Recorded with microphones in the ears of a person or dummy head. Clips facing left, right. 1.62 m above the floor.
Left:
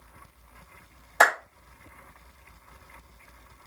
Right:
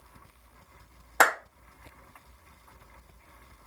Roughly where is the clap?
Right.